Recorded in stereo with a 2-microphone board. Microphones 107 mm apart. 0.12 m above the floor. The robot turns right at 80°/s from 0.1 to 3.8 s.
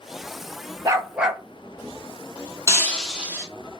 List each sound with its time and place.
0.8 s a dog barking: 40° right, 0.6 m; by 1.4 s 5° left, 0.6 m
2.7 s breaking glass: 150° left, 1.4 m; by 3.5 s 150° right, 1.4 m